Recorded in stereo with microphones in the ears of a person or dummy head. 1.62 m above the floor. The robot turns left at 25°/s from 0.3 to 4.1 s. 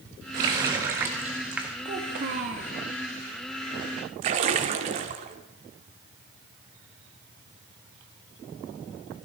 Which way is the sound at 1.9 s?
50° right (ahead or behind).